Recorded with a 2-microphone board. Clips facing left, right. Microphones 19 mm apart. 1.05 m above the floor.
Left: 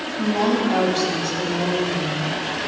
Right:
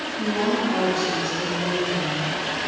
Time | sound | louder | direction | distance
0.2 | a woman speaking | left 3 dB | 30° left (ahead or behind) | 1.3 m